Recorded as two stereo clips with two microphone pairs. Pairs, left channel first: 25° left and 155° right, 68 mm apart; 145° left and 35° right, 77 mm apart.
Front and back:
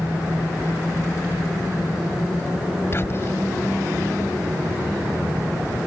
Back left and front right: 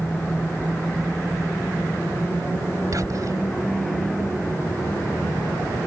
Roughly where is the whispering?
Ahead.